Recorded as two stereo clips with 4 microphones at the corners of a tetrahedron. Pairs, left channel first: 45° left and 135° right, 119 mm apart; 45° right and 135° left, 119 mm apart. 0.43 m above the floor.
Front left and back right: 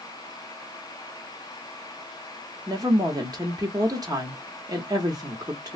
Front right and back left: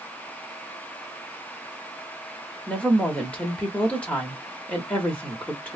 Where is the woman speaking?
115° right, 0.9 m.